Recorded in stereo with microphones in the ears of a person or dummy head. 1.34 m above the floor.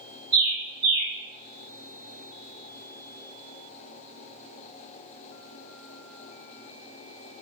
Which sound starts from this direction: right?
A bird, at 0.3 s.